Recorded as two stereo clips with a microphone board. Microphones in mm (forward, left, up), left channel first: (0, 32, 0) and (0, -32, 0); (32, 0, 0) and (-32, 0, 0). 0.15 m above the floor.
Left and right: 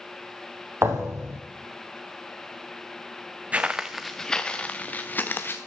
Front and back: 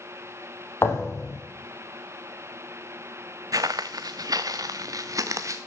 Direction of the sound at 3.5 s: 160° right.